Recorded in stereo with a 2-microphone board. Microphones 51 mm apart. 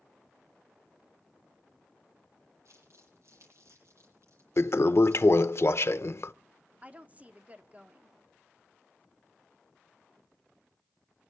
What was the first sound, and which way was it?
Crumpling, 65° right (ahead or behind).